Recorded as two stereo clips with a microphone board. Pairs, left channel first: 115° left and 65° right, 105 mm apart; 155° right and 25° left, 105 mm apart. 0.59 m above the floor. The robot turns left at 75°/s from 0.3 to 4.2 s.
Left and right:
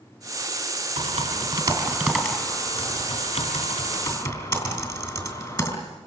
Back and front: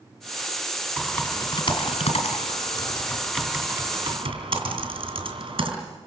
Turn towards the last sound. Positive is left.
turn(degrees=55)